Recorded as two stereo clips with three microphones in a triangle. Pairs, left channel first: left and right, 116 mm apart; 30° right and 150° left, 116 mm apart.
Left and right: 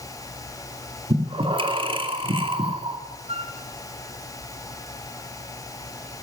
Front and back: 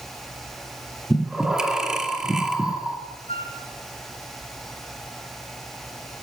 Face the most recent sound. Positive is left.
turn(degrees=-60)